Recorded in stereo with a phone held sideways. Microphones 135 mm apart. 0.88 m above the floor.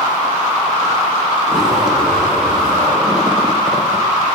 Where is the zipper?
Centre (ahead or behind), 2 m.